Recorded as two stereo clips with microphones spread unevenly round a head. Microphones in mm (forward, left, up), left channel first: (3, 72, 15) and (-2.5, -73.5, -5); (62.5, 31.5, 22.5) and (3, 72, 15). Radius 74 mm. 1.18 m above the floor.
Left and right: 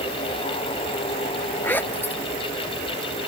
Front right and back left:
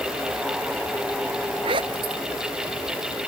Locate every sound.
1.6 s a zipper: 165° left